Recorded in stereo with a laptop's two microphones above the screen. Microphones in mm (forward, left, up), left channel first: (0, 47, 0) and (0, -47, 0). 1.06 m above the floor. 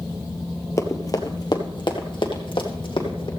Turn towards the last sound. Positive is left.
turn(degrees=65)  # may be behind; listen again after turning